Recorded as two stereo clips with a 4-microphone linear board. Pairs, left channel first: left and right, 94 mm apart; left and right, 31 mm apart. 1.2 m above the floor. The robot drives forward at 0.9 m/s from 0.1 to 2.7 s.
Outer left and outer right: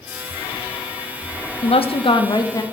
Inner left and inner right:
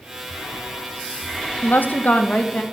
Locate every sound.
1.6 s a woman speaking: 90° left, 0.7 m; by 2.6 s 40° left (ahead or behind), 1.2 m